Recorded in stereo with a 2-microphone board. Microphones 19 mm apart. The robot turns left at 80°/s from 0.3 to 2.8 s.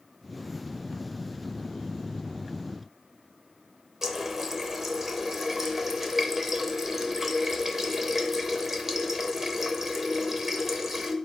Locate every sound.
4.0 s a running tap: 20° right (ahead or behind), 0.5 m